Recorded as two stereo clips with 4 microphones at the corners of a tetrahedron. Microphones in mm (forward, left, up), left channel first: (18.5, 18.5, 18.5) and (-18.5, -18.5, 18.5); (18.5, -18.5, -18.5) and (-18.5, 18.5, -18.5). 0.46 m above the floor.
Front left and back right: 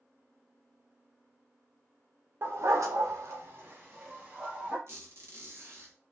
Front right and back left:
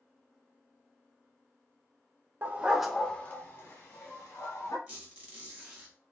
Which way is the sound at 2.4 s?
175° right.